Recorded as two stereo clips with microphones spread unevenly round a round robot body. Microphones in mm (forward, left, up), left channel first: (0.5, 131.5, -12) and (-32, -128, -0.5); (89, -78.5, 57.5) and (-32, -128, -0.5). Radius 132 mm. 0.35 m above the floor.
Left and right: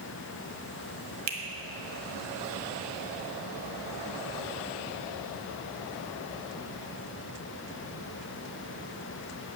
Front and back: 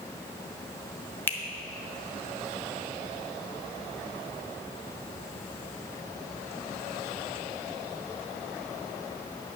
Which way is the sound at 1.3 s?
65° right.